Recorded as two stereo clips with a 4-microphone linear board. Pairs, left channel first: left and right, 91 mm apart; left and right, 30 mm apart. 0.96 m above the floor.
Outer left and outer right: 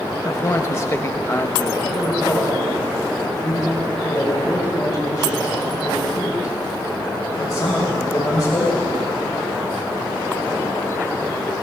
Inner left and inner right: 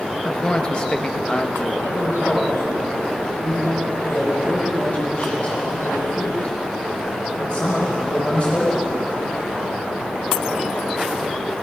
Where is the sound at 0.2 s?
35° left (ahead or behind), 0.9 m.